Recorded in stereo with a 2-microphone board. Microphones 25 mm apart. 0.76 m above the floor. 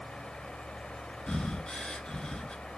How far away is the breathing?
About 1.7 m.